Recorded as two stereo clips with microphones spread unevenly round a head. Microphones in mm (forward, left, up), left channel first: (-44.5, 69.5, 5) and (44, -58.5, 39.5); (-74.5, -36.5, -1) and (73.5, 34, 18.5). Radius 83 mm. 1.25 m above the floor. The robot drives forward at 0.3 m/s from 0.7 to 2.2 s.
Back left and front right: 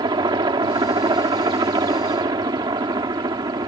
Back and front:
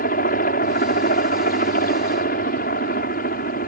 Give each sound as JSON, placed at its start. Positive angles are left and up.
{"t": 0.0, "sound": "a helicopter", "azimuth_deg": -120}